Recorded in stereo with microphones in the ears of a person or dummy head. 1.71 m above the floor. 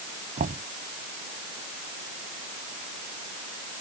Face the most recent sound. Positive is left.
turn(degrees=-40)  # may be behind; listen again after turning